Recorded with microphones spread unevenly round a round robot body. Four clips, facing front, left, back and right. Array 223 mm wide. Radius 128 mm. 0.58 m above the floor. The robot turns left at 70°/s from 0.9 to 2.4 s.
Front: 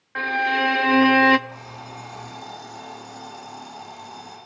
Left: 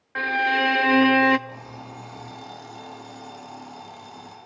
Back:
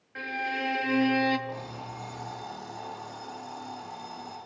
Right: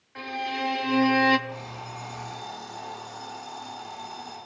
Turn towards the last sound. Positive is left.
turn(degrees=65)